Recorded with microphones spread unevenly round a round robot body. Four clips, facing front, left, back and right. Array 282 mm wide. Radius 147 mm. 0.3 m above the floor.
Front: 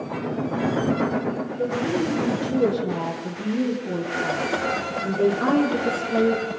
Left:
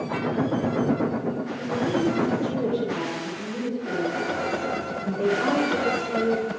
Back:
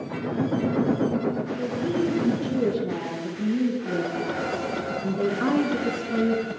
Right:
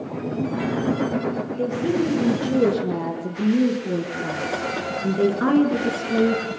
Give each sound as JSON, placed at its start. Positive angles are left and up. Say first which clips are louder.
{"t": 1.6, "sound": "a woman speaking", "louder": "right 2 dB, front 3 dB", "azimuth_deg": -95, "distance_m": 9.5}